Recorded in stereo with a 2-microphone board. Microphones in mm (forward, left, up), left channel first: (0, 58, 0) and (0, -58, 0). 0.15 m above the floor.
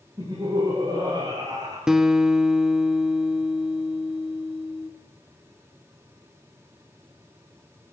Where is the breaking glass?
No breaking glass in this recording.